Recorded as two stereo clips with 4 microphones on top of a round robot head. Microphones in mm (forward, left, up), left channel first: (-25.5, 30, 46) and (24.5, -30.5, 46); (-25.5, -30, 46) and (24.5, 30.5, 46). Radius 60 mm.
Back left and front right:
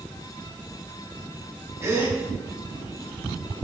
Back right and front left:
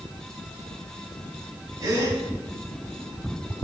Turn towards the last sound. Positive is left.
turn(degrees=0)